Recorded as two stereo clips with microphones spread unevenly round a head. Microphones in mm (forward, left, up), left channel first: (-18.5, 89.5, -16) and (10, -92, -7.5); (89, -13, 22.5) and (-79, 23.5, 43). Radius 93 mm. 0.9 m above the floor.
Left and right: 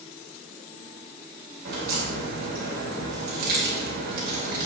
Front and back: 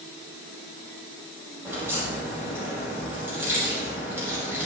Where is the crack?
115° right, 5 m.